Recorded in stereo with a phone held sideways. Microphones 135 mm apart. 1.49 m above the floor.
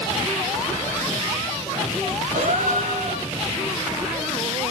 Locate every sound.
2.3 s a gasp: 70° right (ahead or behind), 2.5 m